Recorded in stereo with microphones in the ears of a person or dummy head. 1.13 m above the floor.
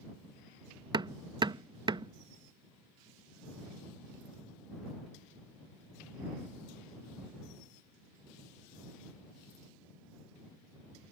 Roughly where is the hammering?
Right.